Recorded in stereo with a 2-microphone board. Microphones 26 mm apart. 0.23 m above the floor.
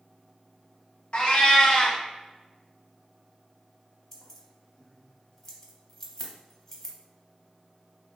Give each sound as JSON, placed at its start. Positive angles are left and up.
{"t": 1.1, "sound": "a cat meowing", "side_deg": 45, "distance_m": 0.6}
{"t": 4.1, "sound": "keys jangling", "side_deg": 15, "distance_m": 0.6}